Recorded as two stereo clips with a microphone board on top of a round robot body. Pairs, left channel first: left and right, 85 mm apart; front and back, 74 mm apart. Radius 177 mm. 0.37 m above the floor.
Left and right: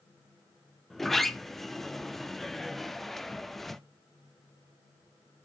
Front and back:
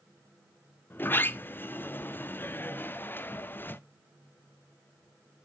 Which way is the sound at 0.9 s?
5° left.